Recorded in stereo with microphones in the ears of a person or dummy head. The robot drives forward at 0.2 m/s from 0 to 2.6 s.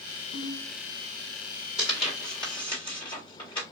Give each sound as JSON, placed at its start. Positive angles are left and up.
{"t": 0.3, "sound": "a ringtone", "side_deg": 65, "distance_m": 1.0}
{"t": 1.8, "sound": "tearing paper", "side_deg": 25, "distance_m": 1.7}